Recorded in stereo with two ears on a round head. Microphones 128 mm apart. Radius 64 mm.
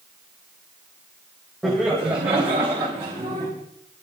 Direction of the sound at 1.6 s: Centre (ahead or behind).